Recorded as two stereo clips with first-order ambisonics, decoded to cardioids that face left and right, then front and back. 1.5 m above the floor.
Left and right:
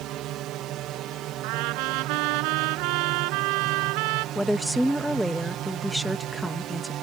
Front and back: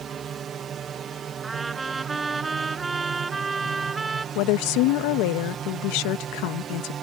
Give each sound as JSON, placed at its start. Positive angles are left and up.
{"t": 0.0, "sound": "a drone", "azimuth_deg": -120}
{"t": 1.4, "sound": "a trumpet", "azimuth_deg": -100}
{"t": 4.3, "sound": "a woman speaking", "azimuth_deg": 0}